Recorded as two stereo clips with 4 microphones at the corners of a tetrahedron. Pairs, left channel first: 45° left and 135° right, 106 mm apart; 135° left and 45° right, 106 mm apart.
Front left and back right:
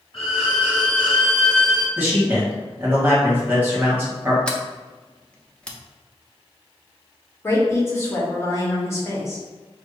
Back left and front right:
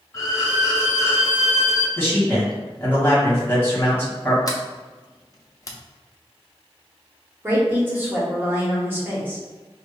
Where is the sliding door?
120° left, 0.6 m.